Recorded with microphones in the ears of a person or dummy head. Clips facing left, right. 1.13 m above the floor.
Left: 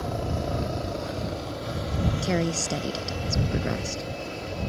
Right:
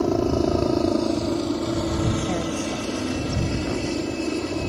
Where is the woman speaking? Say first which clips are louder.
Right 2 dB; 35° left (ahead or behind).